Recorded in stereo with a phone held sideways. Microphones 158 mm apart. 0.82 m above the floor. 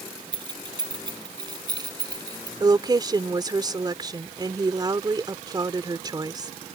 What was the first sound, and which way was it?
Keys jangling, 30° right (ahead or behind).